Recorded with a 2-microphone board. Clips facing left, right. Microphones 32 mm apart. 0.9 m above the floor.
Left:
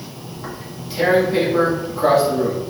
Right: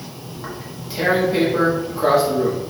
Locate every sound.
0.3 s tearing paper: 5° right (ahead or behind), 1.4 m